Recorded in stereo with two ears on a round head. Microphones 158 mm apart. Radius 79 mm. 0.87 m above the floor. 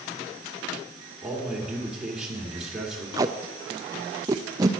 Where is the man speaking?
5° right (ahead or behind), 2.5 m.